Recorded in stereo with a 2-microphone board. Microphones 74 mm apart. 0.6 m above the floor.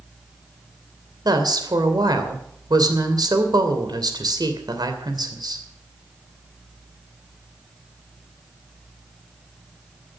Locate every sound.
1.2 s a woman speaking: 65° right (ahead or behind), 2.5 m